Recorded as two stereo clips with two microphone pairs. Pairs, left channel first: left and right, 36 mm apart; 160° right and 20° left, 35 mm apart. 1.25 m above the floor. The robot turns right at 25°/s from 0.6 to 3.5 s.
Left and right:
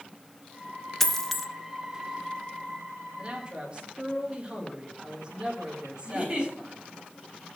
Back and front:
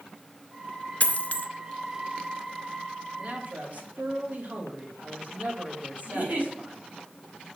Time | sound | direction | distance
1.0 | a dropped coin | 165° left | 0.7 m
3.2 | a man speaking | 30° right | 1.9 m
6.0 | a giggle | 20° right | 3.5 m